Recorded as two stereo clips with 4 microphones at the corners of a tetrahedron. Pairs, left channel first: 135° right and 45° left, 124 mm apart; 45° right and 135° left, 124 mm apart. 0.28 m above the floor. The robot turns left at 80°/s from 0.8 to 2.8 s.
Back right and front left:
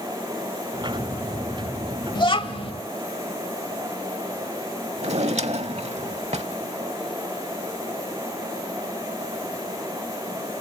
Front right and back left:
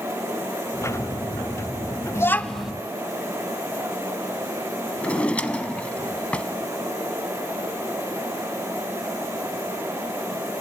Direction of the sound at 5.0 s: 30° left.